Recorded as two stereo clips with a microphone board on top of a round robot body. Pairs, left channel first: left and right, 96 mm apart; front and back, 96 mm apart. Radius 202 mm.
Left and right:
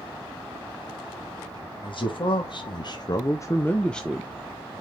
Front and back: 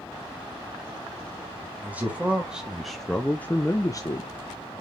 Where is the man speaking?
110° left, 2.0 m; by 4.3 s 5° right, 1.2 m.